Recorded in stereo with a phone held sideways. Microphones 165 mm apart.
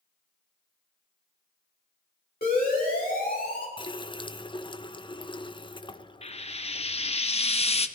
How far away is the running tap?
About 0.6 m.